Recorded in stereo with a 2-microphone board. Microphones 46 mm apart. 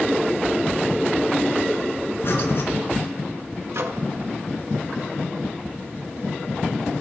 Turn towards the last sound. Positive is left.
turn(degrees=-65)  # may be behind; listen again after turning